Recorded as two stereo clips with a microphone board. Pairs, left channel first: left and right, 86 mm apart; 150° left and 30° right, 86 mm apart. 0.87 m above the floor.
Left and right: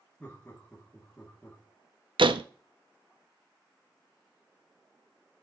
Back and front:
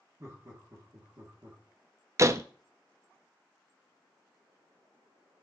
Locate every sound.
0.2 s laughter: 10° left, 2 m
2.2 s a door slam: 80° right, 0.5 m